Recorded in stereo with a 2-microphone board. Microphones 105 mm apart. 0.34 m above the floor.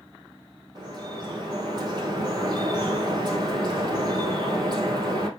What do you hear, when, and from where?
0.8 s dripping: 40° right (ahead or behind), 2.5 m